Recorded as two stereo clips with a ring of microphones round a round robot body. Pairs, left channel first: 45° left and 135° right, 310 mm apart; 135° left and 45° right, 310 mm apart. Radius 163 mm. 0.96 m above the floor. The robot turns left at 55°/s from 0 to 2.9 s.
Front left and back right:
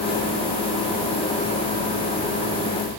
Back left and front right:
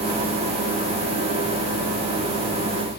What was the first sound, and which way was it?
Only background noise.